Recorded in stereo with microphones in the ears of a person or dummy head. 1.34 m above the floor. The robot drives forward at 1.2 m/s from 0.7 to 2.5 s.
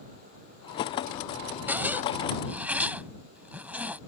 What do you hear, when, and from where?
1.7 s a zipper: 10° right (ahead or behind)